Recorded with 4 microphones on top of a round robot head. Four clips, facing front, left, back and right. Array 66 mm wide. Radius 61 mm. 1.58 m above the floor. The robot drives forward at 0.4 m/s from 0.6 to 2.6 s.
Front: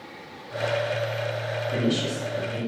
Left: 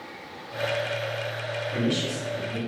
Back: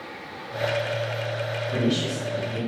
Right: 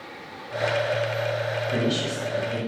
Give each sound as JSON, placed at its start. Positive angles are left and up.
{"t": 1.7, "sound": "a woman speaking", "azimuth_deg": -65, "distance_m": 1.5}